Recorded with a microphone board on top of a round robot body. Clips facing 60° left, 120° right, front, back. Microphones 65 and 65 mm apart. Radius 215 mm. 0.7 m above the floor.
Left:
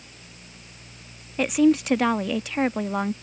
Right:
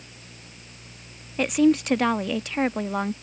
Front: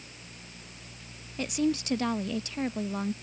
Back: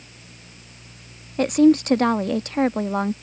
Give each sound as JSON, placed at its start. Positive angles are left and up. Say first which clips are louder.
{"t": 1.4, "sound": "a woman speaking", "louder": "left 1 dB, back 13 dB", "azimuth_deg": 150}